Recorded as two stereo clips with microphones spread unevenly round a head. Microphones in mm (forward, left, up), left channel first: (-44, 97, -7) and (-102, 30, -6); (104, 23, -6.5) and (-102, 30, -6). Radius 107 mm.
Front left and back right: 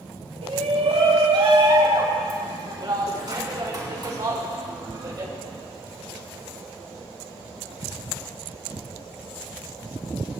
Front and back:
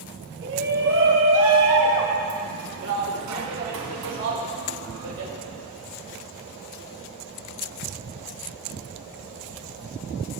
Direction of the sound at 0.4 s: 135° right.